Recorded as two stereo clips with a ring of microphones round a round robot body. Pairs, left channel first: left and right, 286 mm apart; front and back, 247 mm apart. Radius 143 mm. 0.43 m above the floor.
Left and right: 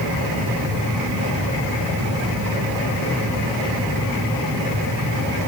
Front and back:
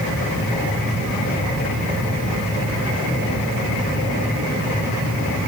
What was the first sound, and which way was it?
Only background noise.